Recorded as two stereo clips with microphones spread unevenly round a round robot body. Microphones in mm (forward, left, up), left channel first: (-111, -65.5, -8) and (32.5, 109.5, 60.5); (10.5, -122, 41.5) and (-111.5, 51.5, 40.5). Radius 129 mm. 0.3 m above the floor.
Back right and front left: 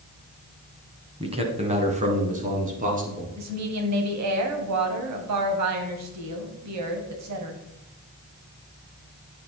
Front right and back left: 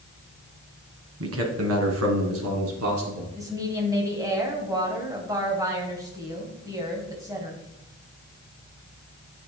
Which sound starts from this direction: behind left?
A man speaking, at 1.2 s.